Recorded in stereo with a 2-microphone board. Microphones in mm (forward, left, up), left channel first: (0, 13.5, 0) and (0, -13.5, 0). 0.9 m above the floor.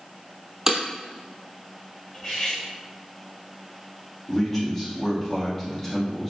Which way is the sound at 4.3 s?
10° left (ahead or behind).